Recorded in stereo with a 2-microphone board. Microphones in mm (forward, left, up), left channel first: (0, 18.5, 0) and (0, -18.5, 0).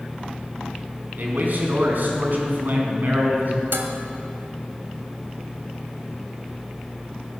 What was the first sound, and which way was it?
A man speaking, 55° right (ahead or behind).